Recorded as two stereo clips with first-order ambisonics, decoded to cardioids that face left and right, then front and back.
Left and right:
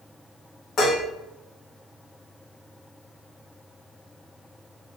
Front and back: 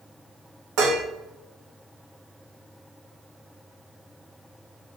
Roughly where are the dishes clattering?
Behind left.